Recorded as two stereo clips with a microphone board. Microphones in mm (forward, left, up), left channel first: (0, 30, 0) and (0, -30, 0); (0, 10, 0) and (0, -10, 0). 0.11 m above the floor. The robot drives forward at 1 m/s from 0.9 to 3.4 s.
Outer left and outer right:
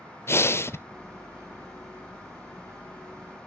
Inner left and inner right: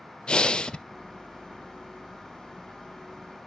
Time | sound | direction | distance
0.3 | breathing | 45° left (ahead or behind) | 0.5 m